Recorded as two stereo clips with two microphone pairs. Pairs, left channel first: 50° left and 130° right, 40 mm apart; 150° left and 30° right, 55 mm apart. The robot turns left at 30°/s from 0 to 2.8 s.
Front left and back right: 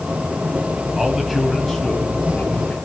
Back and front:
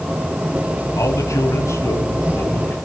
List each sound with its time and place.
1.0 s a man speaking: 165° left, 3.5 m; by 2.8 s 110° left, 3.5 m